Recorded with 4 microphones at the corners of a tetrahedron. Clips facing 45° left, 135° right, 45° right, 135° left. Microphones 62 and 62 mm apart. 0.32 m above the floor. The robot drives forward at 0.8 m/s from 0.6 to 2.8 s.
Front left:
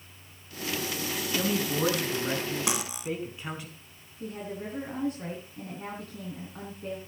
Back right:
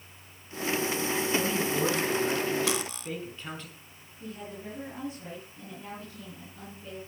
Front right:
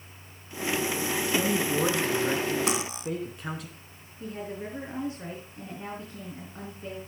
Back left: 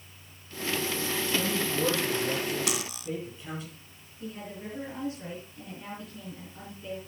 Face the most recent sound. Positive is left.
turn(degrees=10)